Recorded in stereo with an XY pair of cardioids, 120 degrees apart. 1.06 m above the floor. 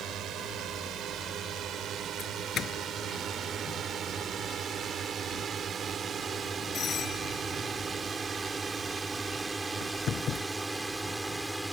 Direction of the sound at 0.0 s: 65° right.